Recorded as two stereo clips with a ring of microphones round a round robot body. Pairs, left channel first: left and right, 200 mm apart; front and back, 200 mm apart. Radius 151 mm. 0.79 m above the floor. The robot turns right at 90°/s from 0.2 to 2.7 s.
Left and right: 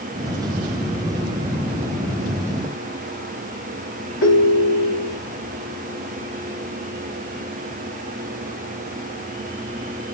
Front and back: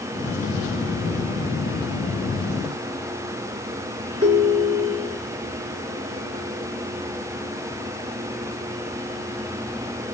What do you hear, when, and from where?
4.2 s a ringtone: 110° left, 1.9 m